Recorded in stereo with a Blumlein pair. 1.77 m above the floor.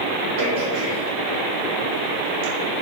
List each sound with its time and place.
0.4 s throat clearing: 50° right, 1.2 m